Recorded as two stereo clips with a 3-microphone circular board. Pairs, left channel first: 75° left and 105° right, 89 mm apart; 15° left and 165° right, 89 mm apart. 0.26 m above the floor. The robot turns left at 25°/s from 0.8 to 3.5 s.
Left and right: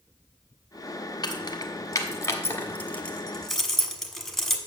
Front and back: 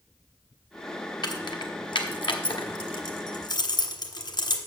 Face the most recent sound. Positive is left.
turn(degrees=-15)